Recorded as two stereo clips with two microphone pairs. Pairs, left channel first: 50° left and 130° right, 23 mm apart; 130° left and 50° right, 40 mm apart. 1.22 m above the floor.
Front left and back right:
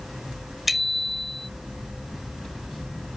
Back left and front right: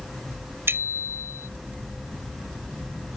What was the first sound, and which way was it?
A bicycle bell, 45° right.